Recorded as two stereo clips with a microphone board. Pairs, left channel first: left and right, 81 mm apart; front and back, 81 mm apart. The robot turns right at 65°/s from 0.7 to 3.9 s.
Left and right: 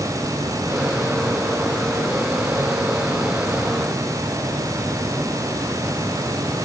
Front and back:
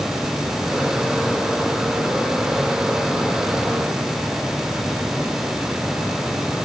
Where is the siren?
No siren in this recording.